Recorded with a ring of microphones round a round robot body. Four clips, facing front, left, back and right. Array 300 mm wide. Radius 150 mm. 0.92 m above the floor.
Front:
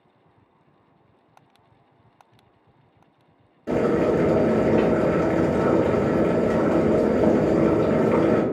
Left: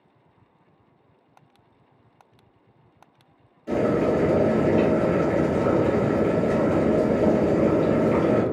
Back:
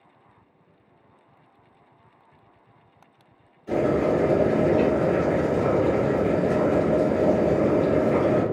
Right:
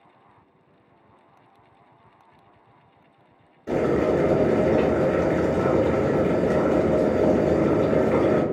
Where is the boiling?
15° right, 1.4 m.